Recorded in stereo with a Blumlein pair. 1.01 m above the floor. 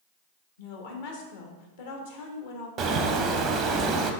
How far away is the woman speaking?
About 1.0 m.